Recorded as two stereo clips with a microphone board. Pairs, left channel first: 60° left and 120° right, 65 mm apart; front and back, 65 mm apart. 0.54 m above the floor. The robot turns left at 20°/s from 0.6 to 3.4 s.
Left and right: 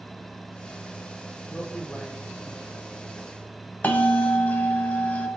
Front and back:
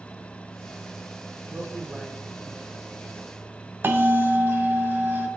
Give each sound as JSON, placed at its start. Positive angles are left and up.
{"t": 1.5, "sound": "a man speaking", "azimuth_deg": 130, "distance_m": 1.4}
{"t": 3.8, "sound": "a bell", "azimuth_deg": 125, "distance_m": 0.9}